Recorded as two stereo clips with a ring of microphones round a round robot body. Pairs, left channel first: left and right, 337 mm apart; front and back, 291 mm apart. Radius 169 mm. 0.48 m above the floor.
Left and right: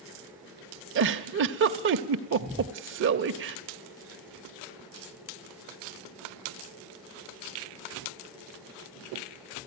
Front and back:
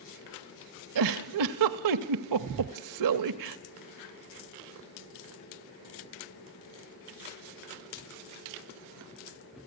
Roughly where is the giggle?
Behind right.